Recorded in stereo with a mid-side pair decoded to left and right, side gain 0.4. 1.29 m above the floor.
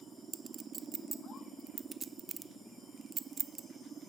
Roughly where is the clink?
Ahead right.